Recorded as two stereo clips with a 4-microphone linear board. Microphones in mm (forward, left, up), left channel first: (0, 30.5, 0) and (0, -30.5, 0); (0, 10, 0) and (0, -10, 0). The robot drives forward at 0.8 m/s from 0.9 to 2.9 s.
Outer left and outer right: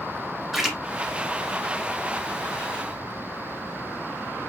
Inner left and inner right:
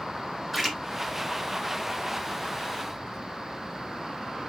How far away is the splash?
About 1.5 m.